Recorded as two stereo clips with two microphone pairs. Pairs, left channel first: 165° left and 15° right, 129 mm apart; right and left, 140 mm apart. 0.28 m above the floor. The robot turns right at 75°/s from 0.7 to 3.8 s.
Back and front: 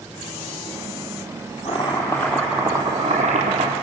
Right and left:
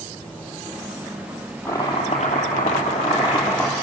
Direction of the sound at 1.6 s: 165° right.